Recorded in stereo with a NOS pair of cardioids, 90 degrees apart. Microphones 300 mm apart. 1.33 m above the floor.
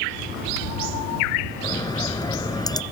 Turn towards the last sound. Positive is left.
turn(degrees=15)